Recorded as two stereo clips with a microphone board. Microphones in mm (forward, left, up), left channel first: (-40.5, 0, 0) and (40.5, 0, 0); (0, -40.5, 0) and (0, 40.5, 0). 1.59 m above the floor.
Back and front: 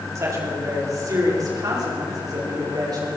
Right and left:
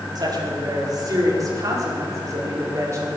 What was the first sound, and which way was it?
A woman speaking, 50° left.